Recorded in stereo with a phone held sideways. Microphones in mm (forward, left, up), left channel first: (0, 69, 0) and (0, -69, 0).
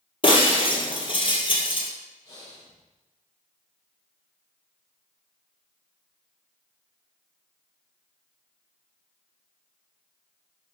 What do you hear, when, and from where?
0.2 s breaking glass: 40° left (ahead or behind), 1.5 m
2.2 s breathing: 25° left (ahead or behind), 4 m